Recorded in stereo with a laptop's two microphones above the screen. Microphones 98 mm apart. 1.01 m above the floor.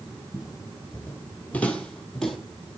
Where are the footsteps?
30° left (ahead or behind), 2 m; by 2.4 s centre (ahead or behind), 2 m.